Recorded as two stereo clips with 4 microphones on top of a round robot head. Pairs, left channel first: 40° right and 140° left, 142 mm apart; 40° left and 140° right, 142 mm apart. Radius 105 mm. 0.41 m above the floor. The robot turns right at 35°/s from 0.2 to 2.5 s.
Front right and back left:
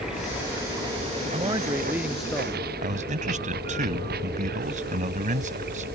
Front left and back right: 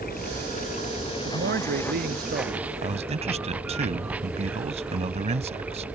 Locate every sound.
0.0 s running water: 55° left; by 6.0 s 135° left
1.2 s a man speaking: 160° right; by 2.7 s 120° right
2.8 s a man speaking: 175° left